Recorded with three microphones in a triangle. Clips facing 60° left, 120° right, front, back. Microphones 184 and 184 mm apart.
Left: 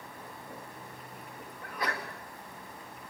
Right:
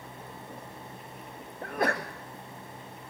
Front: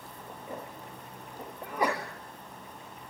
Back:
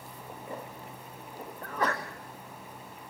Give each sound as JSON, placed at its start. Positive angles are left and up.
{"t": 1.6, "sound": "a sneeze", "azimuth_deg": -75, "distance_m": 1.7}